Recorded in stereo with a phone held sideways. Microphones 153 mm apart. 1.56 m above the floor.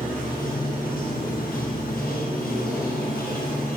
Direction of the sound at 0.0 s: 70° left (ahead or behind).